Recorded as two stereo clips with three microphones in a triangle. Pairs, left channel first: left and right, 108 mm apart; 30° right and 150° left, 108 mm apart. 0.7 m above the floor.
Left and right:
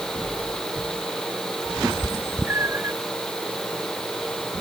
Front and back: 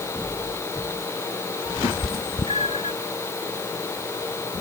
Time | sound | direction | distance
1.8 | a cat meowing | 15° right | ?